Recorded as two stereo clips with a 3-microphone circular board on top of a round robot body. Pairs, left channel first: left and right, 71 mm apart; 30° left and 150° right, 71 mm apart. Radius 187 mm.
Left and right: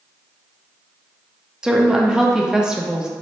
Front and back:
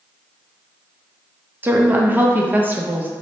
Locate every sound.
1.6 s a woman speaking: 155° right, 0.7 m